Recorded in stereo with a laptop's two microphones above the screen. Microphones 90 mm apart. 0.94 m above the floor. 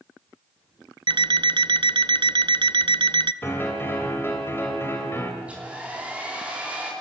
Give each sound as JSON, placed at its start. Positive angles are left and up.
{"t": 1.1, "sound": "an alarm clock", "side_deg": -60, "distance_m": 0.5}
{"t": 3.4, "sound": "a piano", "side_deg": 25, "distance_m": 2.5}
{"t": 5.4, "sound": "a hair dryer", "side_deg": -15, "distance_m": 3.0}